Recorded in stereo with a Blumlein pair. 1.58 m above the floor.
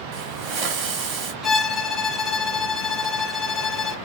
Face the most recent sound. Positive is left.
turn(degrees=15)